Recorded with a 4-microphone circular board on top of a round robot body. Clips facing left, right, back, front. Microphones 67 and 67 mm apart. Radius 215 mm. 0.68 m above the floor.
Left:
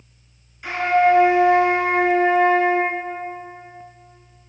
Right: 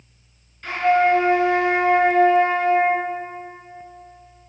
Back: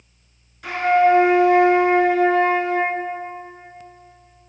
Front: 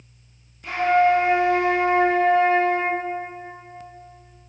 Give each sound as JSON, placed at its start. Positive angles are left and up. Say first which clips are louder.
{"t": 0.6, "sound": "a flute", "louder": "left 1 dB, back 2 dB", "azimuth_deg": 170, "distance_m": 4.5}